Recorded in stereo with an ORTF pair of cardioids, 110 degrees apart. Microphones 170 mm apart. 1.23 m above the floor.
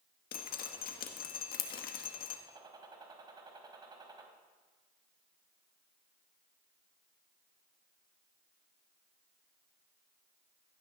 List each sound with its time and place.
0.3 s dripping: 60° left, 1.9 m
2.5 s a gunshot: 25° right, 3 m